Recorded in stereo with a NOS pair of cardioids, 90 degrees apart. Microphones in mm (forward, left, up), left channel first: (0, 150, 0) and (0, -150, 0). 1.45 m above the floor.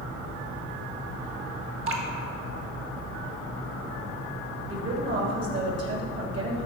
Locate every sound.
1.9 s dripping: 45° right, 1.6 m
4.7 s a woman speaking: 55° right, 3 m